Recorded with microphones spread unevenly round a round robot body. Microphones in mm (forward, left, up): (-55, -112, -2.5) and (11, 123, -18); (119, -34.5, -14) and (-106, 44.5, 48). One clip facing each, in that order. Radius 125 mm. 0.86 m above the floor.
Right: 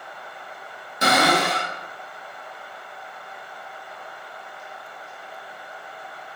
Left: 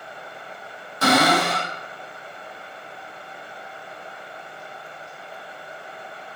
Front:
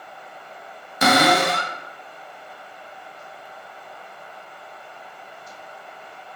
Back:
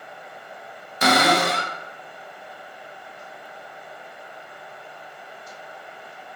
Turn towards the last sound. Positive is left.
turn(degrees=-30)